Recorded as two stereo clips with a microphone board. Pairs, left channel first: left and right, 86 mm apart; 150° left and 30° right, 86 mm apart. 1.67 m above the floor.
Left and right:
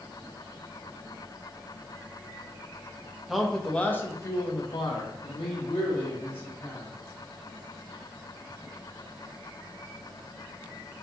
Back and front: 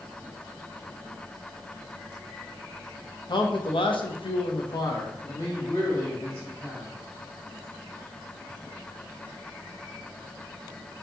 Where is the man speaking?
Straight behind, 0.8 m; by 6.9 s 80° left, 1.5 m.